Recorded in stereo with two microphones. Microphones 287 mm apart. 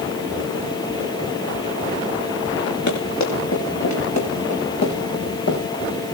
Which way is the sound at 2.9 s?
80° left.